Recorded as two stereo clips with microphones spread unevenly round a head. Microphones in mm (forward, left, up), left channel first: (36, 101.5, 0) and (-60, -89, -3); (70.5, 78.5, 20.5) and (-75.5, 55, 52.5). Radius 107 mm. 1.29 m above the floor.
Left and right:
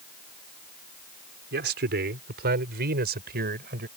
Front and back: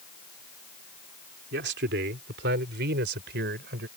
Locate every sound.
1.5 s a man speaking: 160° right; by 3.9 s 165° right